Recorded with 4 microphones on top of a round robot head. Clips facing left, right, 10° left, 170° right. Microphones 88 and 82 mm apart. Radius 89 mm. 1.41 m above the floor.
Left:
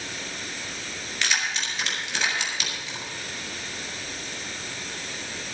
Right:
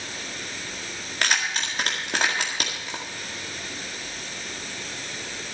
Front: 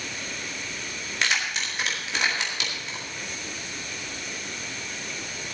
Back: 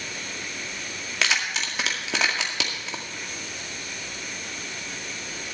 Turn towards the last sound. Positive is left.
turn(degrees=-145)